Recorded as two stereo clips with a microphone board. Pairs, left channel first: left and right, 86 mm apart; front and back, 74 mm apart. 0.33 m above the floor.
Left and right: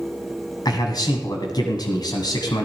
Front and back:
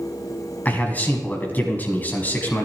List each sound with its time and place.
0.7 s a man speaking: 65° left, 2.0 m